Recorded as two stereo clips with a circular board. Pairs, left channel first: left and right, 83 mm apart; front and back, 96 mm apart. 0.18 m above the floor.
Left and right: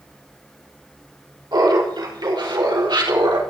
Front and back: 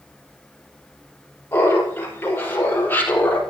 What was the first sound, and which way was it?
Laughter, 65° right.